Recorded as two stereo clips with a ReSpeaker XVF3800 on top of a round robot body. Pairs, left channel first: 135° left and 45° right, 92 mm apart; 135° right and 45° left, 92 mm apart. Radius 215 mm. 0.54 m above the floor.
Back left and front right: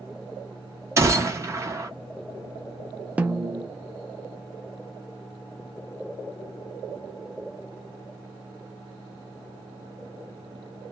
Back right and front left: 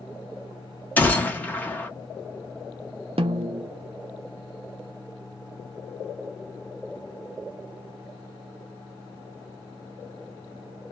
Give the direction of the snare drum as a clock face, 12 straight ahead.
11 o'clock.